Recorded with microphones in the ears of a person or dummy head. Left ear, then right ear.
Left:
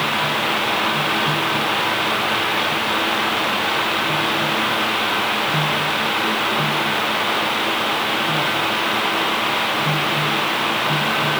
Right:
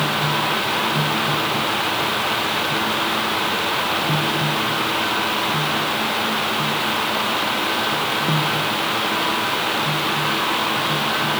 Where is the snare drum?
I don't hear a snare drum.